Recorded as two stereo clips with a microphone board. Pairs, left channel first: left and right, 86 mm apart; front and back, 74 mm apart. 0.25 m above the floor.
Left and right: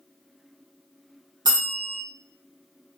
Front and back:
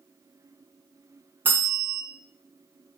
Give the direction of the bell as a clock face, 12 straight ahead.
4 o'clock.